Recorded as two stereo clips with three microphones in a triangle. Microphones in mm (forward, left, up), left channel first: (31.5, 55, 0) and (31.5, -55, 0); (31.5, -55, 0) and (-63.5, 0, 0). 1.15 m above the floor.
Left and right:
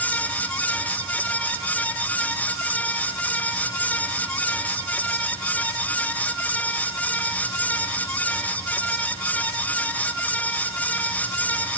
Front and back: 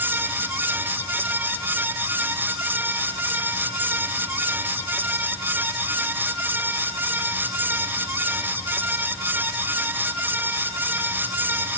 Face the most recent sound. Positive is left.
No sound to turn to.